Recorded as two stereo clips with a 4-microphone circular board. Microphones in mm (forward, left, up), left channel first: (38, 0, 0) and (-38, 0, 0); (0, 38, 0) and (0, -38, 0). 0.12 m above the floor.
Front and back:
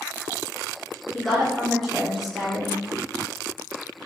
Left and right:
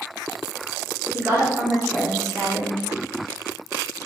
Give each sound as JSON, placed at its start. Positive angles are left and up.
{"t": 1.1, "sound": "a woman speaking", "azimuth_deg": -85, "distance_m": 1.5}